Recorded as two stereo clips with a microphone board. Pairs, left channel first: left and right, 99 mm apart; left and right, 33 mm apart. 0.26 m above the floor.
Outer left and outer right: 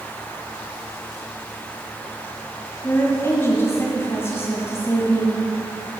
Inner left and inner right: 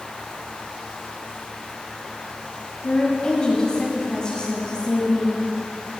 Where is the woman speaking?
25° left (ahead or behind), 1.6 m.